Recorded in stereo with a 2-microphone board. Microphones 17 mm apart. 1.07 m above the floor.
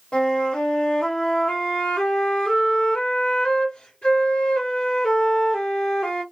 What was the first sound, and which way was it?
A flute, 70° left (ahead or behind).